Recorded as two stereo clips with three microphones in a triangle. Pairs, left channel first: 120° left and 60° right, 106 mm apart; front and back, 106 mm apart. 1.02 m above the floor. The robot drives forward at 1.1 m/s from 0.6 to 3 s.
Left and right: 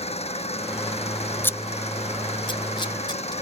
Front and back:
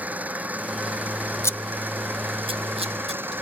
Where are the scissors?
50° left; by 3.3 s 165° left.